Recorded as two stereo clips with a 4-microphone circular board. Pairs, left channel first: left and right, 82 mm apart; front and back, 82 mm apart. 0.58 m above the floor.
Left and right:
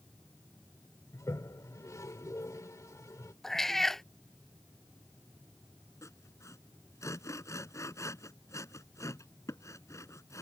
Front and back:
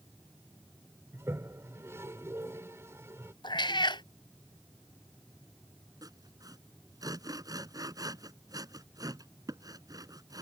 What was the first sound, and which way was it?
A toilet flushing, 130° left.